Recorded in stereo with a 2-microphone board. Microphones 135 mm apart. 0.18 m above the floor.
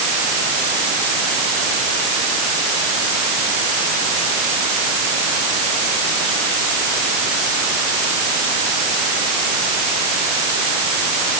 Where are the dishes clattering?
No dishes clattering in this recording.